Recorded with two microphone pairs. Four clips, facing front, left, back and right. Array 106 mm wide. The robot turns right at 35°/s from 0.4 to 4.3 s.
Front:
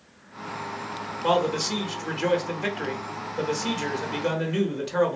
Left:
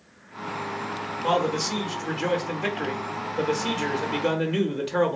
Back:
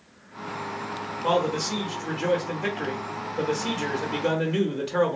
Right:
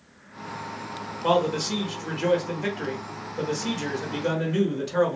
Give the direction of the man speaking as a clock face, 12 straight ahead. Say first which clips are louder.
Right 1 dB, front 1 dB; 1 o'clock.